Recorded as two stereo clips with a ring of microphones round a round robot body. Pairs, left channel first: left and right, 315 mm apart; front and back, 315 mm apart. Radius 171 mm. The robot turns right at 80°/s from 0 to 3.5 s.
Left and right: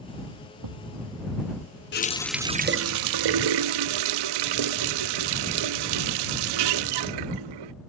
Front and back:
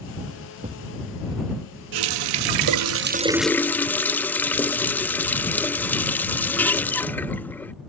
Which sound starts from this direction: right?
A thud, at 0.6 s.